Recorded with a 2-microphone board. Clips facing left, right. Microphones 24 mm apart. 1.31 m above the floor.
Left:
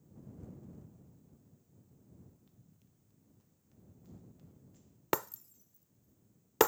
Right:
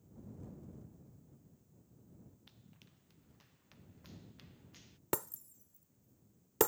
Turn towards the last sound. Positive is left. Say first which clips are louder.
# left 5 dB
turn(degrees=30)  # may be behind; listen again after turning